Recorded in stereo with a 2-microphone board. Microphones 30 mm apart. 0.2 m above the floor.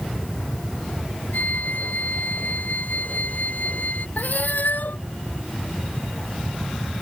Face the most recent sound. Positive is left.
turn(degrees=85)